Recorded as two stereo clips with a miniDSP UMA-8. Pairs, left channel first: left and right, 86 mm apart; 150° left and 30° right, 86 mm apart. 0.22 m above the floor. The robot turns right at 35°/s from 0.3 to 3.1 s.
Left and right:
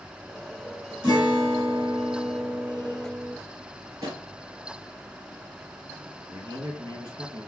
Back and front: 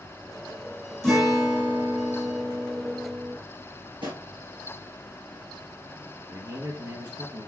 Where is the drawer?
50° right, 2.5 m.